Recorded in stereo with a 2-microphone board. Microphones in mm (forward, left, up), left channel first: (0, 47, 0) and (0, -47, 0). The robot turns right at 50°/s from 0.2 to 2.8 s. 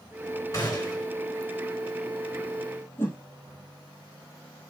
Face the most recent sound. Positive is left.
turn(degrees=25)  # may be behind; listen again after turning